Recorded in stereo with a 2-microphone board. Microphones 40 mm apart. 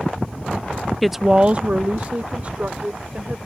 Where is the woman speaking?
5° left (ahead or behind); by 3.4 s 40° right (ahead or behind).